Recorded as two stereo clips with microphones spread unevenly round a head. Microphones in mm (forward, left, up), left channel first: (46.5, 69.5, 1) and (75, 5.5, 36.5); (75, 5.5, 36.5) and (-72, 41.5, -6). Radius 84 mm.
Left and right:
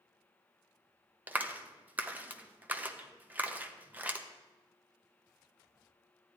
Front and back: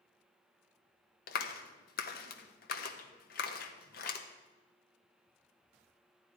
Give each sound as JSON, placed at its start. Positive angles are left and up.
{"t": 1.3, "sound": "a clap", "azimuth_deg": -15, "distance_m": 1.1}